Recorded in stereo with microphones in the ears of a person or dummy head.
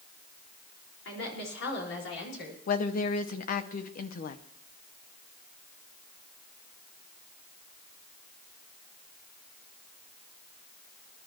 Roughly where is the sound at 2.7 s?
Left.